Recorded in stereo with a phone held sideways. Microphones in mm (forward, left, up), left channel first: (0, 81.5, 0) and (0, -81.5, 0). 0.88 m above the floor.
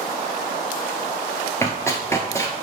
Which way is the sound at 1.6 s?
20° left (ahead or behind).